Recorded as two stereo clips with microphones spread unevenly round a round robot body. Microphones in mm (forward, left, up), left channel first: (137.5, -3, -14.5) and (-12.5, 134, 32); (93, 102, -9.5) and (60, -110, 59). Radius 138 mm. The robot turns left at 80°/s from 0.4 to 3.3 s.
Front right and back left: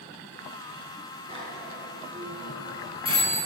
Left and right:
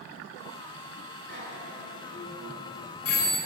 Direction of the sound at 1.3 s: 140° right.